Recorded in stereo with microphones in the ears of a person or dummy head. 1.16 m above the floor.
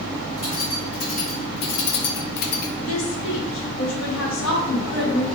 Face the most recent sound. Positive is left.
turn(degrees=80)